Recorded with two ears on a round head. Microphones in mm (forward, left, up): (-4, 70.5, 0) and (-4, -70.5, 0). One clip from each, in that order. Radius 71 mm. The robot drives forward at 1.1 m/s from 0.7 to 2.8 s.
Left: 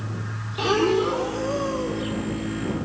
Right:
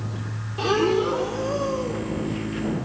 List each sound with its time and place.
0.6 s breathing: 10° left (ahead or behind), 0.8 m; by 2.1 s 5° left (ahead or behind), 2.0 m